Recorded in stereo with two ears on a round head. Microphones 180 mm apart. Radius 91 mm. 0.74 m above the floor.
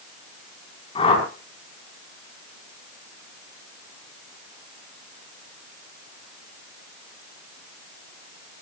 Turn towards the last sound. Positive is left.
turn(degrees=25)  # may be behind; listen again after turning